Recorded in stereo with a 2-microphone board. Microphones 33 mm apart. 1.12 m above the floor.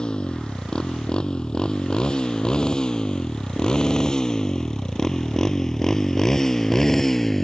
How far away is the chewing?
No chewing in this recording.